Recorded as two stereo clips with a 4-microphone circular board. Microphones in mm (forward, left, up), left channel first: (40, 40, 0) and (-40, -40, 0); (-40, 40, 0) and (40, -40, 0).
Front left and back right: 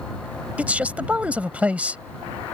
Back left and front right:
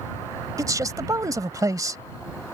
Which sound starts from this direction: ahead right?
A man speaking, at 0.6 s.